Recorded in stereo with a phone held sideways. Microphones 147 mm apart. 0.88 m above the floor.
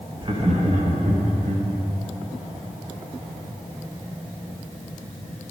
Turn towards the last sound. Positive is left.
turn(degrees=-70)  # may be behind; listen again after turning